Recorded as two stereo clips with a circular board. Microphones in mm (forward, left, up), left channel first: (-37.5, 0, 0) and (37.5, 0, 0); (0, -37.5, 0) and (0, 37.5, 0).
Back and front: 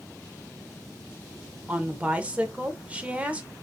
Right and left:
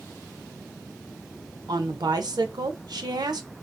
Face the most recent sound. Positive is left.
turn(degrees=70)